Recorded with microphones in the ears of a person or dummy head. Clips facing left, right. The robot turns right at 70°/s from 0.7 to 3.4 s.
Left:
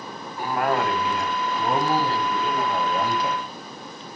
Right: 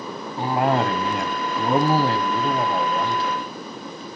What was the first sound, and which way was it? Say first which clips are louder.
A cough: right 3 dB; 155° right.